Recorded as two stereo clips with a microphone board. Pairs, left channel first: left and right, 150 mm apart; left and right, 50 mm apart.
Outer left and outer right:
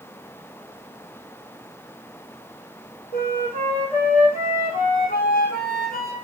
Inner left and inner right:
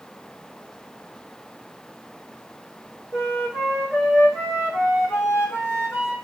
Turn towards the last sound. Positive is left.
turn(degrees=75)  # may be behind; listen again after turning